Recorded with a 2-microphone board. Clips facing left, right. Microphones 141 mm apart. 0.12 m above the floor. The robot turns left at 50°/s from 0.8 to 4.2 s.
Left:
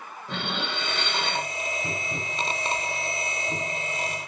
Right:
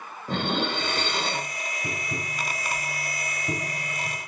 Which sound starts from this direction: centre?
Tapping, at 1.8 s.